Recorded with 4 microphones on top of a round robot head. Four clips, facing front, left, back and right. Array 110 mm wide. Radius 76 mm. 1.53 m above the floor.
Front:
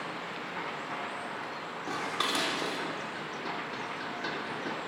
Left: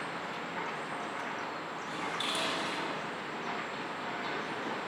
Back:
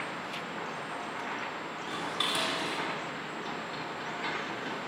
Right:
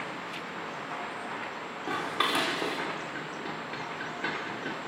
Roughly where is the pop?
No pop in this recording.